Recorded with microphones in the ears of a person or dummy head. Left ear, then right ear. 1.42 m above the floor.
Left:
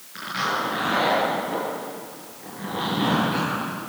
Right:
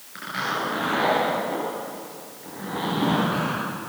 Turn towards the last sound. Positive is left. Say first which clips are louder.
# left 2 dB
turn(degrees=-5)  # may be behind; listen again after turning